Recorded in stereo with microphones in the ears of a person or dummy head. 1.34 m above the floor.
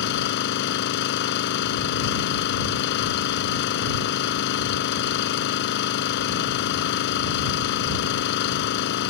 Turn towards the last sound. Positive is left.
turn(degrees=60)  # may be behind; listen again after turning